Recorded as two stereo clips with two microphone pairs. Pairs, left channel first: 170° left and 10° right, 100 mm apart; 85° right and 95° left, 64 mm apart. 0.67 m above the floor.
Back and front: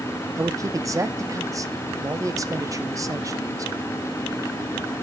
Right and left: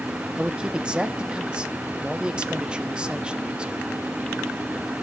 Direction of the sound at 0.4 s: 20° left.